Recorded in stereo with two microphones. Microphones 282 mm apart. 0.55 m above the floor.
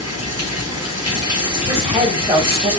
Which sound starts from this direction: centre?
A woman speaking, at 1.7 s.